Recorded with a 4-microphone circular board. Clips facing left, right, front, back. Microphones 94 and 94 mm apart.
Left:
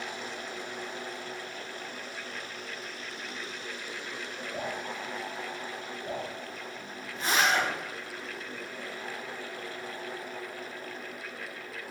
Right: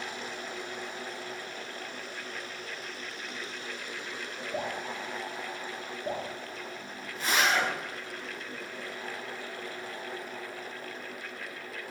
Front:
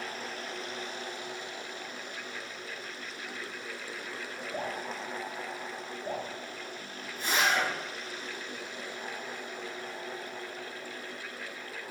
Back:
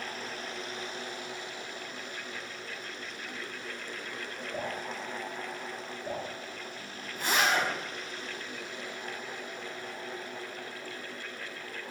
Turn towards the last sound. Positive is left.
turn(degrees=150)